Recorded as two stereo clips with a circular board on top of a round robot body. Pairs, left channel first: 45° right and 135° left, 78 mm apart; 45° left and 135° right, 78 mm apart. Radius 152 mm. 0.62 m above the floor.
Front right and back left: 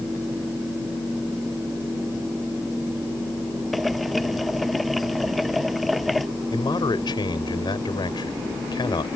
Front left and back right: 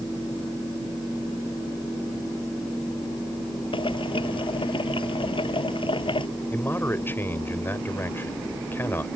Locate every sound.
3.7 s boiling: 45° left
6.5 s a man speaking: 20° right